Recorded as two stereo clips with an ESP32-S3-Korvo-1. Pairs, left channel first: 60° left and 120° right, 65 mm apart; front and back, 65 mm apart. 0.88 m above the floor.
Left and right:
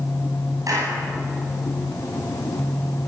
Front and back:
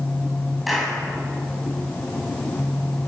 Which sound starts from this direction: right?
A clap, at 0.7 s.